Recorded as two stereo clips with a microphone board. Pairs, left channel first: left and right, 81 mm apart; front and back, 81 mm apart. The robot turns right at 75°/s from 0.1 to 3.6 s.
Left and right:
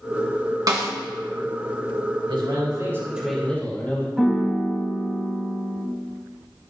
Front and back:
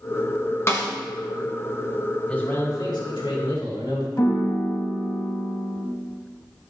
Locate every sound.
0.7 s a snare drum: 55° right, 1.3 m; by 0.9 s 40° right, 1.3 m
2.3 s a man speaking: 80° right, 2 m; by 4.1 s 20° left, 2 m
4.2 s a piano: 5° right, 1.7 m